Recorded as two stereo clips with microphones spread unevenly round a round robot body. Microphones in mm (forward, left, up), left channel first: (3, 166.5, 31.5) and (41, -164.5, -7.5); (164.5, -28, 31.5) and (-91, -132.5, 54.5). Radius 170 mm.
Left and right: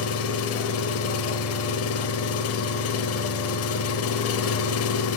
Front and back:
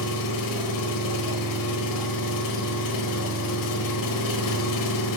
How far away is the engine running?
About 1.2 m.